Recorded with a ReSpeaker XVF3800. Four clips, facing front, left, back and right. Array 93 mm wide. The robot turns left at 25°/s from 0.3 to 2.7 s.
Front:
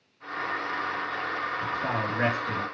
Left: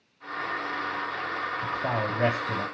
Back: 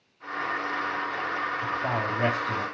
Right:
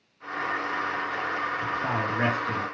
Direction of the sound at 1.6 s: 25° right.